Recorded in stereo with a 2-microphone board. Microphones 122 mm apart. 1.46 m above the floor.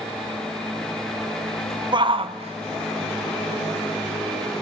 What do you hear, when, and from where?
1.9 s a shout: 40° right (ahead or behind), 0.8 m; by 4.6 s 75° right (ahead or behind), 2.0 m